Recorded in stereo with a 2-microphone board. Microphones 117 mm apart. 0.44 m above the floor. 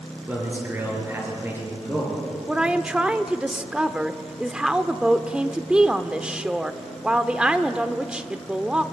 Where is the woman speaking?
10° right (ahead or behind), 0.8 m.